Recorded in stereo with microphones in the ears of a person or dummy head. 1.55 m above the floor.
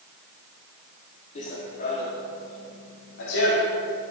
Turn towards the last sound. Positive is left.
turn(degrees=75)  # may be behind; listen again after turning